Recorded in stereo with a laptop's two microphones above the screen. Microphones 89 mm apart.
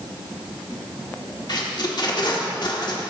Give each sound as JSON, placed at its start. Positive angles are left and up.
{"t": 1.5, "sound": "tape being pulled", "side_deg": 55, "distance_m": 1.5}